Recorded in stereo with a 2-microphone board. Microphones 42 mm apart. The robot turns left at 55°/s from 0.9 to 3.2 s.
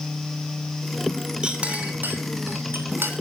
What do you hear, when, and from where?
1.4 s a clink: 25° right (ahead or behind), 2.5 m; by 3.1 s 60° right (ahead or behind), 2.5 m